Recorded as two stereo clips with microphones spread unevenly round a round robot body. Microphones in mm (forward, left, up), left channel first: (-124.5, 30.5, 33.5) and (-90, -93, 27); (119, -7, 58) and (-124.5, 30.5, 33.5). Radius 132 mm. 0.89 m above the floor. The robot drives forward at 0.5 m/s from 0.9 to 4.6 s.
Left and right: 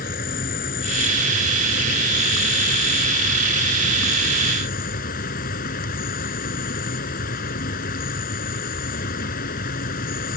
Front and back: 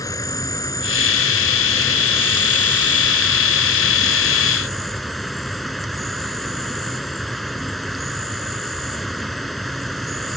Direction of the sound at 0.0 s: 70° left.